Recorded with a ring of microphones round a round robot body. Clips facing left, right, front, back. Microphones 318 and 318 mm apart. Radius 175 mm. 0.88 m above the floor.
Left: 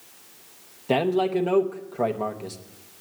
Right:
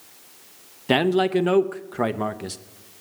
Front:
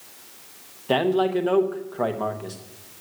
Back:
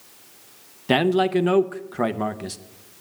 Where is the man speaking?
140° right, 0.8 m.